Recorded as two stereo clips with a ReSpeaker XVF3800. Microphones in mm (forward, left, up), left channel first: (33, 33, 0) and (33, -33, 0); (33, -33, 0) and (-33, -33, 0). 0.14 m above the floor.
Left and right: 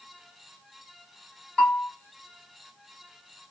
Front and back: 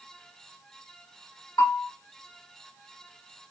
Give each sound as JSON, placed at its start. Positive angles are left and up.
{"t": 1.6, "sound": "a bell", "azimuth_deg": 15, "distance_m": 2.5}